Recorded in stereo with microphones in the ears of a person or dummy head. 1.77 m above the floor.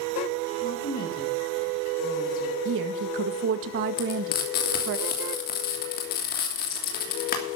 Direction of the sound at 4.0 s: 50° left (ahead or behind).